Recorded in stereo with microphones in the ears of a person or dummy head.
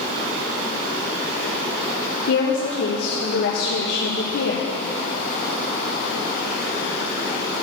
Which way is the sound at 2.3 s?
70° left (ahead or behind).